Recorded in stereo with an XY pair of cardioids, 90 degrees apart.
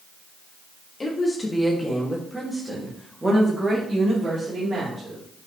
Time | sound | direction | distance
1.0 | a woman speaking | 30° left | 2.5 m